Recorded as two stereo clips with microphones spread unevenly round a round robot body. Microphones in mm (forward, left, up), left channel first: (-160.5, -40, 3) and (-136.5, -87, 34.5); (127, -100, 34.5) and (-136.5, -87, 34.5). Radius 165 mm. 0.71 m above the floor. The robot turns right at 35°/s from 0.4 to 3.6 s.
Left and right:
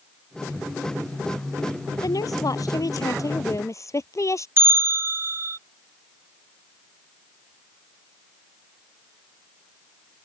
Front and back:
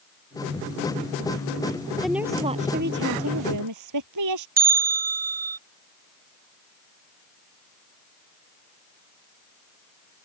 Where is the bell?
125° right.